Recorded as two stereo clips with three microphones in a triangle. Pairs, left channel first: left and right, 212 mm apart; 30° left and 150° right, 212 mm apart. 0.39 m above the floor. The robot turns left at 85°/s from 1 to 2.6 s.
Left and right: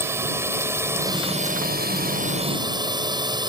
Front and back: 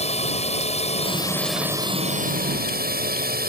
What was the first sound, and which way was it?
A drone, 15° right.